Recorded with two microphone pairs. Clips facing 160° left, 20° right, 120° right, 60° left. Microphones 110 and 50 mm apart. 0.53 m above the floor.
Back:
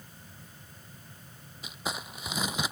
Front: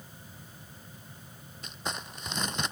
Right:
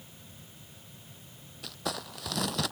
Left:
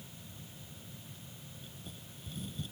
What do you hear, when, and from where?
1.6 s crumpling: 115° right